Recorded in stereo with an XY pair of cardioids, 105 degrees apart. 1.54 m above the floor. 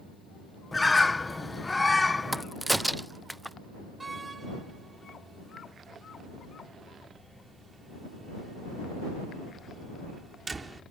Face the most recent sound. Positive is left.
turn(degrees=-25)